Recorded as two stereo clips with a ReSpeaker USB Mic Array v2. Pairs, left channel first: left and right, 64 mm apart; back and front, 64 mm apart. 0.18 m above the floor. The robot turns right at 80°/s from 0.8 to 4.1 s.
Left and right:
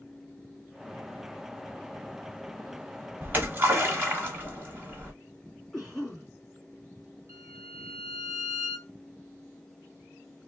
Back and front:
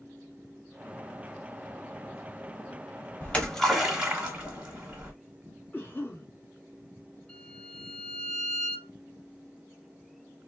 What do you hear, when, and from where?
3.2 s a splash: 135° right, 1.6 m; by 5.1 s 65° right, 1.6 m
5.7 s a cough: 175° left, 1.9 m
7.3 s a violin: 115° right, 3 m